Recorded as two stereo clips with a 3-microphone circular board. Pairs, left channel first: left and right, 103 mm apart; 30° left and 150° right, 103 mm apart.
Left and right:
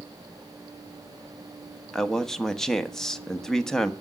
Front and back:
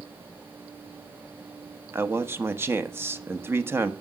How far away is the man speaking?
About 1.1 m.